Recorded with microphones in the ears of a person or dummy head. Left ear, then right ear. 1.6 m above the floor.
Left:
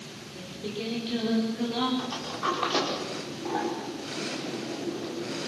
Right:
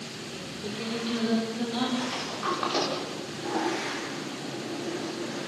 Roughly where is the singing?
Centre.